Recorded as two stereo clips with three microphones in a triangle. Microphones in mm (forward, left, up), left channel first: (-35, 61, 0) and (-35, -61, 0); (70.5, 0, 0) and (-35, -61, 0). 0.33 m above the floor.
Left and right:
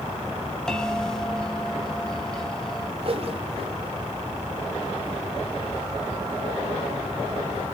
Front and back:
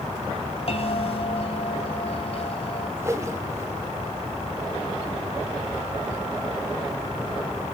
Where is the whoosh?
90° right, 2 m.